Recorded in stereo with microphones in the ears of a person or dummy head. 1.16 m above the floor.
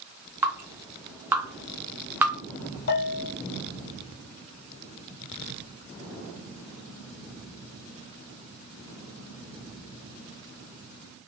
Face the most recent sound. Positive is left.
turn(degrees=50)  # may be behind; listen again after turning